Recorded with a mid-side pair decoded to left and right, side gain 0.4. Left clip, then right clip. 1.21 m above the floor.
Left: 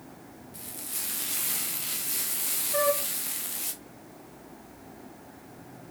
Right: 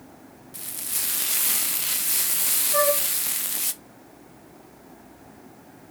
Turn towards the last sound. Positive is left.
turn(degrees=-20)